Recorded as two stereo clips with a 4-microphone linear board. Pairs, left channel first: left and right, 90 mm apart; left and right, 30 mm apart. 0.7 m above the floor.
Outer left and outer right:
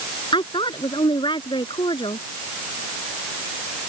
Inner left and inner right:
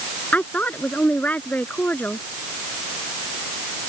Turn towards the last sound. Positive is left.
turn(degrees=65)  # may be behind; listen again after turning